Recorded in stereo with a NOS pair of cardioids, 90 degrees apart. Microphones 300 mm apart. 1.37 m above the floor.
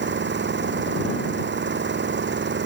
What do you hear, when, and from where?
0.0 s an engine running: 40° right